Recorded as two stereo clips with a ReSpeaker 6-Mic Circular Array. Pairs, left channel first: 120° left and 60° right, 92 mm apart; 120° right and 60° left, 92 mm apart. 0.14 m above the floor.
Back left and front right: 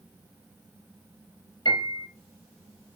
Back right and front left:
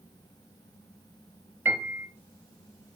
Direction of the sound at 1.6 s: 110° left.